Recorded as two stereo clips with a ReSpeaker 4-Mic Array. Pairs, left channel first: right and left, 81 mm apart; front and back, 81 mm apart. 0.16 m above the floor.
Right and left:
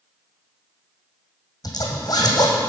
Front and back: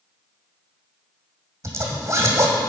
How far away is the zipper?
About 1.8 m.